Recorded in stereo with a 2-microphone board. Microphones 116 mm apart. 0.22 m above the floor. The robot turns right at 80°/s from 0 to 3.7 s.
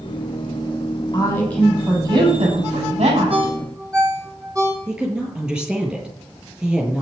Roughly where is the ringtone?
Right.